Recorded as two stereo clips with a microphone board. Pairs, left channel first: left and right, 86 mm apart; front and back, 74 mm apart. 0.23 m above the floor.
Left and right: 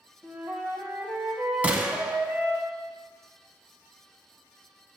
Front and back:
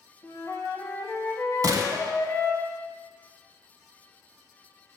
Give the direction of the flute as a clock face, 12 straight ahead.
1 o'clock.